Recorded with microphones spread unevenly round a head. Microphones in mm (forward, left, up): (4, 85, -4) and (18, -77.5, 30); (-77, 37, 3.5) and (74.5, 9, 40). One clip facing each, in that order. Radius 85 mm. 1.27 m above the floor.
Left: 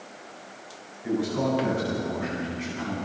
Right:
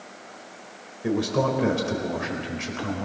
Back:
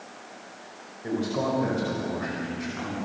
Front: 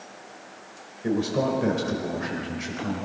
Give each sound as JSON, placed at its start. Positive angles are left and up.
{"t": 1.0, "sound": "a man speaking", "azimuth_deg": -75, "distance_m": 5.0}